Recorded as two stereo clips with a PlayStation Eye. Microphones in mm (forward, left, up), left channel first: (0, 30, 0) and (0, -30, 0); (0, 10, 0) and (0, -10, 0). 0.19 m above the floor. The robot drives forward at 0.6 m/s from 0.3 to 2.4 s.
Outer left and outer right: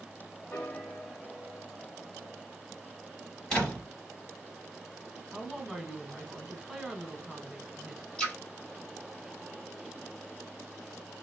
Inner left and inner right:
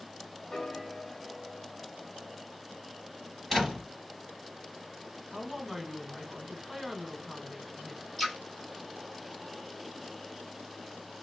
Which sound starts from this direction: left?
A piano, at 0.5 s.